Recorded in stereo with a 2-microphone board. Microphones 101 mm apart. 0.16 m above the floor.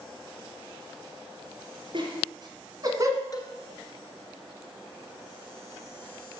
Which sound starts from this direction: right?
Laughter, at 1.9 s.